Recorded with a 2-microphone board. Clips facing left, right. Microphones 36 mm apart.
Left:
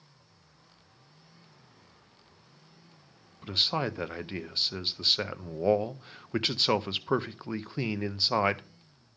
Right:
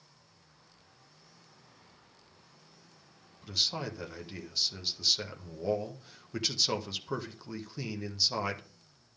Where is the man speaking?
35° left (ahead or behind), 0.6 m.